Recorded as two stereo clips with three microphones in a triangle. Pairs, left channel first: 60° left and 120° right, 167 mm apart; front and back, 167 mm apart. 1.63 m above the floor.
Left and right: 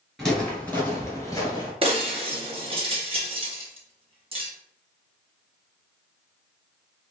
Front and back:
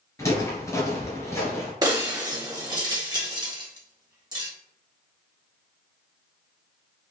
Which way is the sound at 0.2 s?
25° right.